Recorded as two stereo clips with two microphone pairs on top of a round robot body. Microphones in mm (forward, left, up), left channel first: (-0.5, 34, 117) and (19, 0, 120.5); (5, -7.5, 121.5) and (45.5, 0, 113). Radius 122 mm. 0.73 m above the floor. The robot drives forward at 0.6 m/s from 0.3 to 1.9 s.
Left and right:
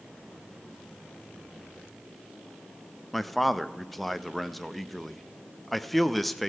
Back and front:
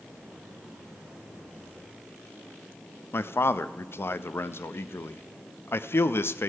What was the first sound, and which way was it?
A man speaking, 160° right.